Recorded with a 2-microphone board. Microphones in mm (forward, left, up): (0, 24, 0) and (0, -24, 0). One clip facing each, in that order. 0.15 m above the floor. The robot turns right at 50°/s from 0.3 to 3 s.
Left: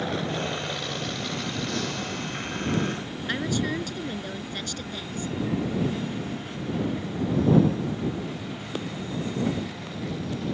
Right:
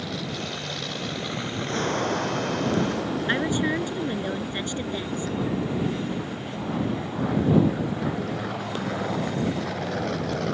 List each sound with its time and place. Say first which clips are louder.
0.0 s an aircraft: left 3 dB; 145° left; by 10.6 s 80° right
3.3 s a woman speaking: right 2 dB; 25° right (ahead or behind)